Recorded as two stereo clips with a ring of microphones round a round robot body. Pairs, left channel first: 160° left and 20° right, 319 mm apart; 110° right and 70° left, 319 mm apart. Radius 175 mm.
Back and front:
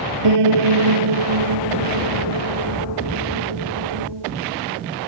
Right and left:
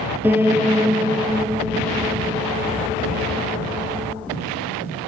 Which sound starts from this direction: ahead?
A piano, at 0.2 s.